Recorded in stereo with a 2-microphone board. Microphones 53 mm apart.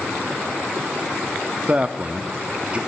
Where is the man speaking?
25° right (ahead or behind), 0.7 m.